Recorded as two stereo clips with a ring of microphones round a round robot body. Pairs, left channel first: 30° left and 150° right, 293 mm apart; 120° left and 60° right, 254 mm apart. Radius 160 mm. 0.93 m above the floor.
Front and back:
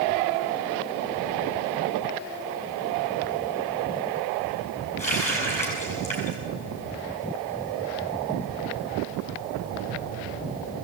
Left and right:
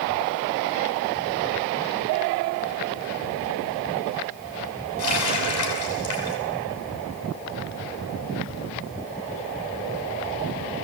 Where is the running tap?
100° left, 6.5 m.